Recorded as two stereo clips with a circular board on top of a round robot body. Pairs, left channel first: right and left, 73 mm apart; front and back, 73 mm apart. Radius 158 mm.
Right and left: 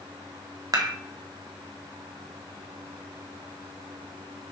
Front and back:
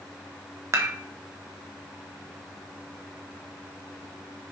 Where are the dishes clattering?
130° left, 1.3 m.